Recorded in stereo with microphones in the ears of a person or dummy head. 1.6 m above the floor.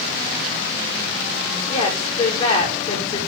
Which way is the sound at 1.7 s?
40° left (ahead or behind).